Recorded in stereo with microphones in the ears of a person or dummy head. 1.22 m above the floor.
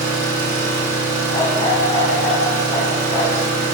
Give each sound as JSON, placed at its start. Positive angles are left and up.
{"t": 0.0, "sound": "an engine running", "side_deg": -60, "distance_m": 1.3}
{"t": 1.3, "sound": "a dog barking", "side_deg": 20, "distance_m": 0.9}